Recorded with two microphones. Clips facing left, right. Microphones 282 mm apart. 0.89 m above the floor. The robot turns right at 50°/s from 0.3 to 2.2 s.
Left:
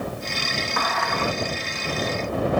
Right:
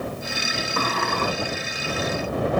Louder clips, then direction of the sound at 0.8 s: Right 3 dB; 30° right (ahead or behind).